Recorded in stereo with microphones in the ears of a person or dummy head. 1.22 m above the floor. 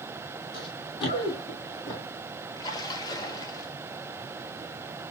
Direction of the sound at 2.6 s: 25° left (ahead or behind).